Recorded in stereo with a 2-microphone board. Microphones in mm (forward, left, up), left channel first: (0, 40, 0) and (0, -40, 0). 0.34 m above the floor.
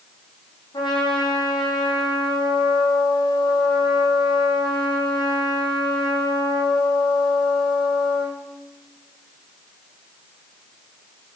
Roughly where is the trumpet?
Left.